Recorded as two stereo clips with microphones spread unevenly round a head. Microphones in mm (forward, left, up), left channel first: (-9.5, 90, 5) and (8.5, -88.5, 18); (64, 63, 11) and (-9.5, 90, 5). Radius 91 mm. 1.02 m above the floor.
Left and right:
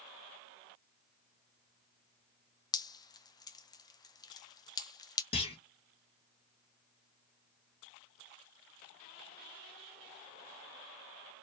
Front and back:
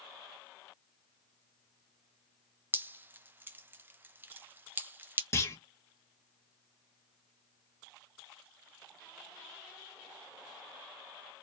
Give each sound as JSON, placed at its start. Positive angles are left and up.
{"t": 2.7, "sound": "dripping", "azimuth_deg": 135, "distance_m": 0.6}
{"t": 5.3, "sound": "a clunk", "azimuth_deg": 35, "distance_m": 1.6}